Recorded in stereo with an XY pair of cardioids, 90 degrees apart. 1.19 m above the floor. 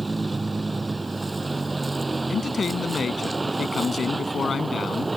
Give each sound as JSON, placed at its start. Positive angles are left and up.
{"t": 0.0, "sound": "a vehicle", "azimuth_deg": -25}
{"t": 2.3, "sound": "a man speaking", "azimuth_deg": 45}